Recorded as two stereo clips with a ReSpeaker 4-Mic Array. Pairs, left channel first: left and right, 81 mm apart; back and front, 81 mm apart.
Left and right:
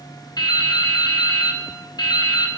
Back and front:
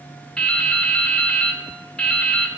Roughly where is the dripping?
Left.